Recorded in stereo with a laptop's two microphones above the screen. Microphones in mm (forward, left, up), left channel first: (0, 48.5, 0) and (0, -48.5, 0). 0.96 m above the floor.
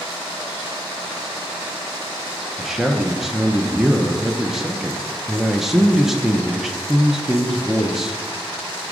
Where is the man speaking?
5° right (ahead or behind), 0.5 m.